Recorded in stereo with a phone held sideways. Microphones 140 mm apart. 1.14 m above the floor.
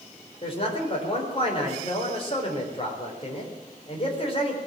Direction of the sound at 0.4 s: 40° left (ahead or behind).